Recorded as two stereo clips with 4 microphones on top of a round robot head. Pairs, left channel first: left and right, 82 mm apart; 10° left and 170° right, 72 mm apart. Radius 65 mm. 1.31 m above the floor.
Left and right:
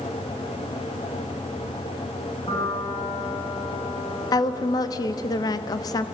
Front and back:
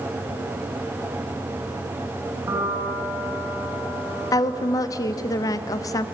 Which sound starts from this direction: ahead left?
A woman speaking, at 4.3 s.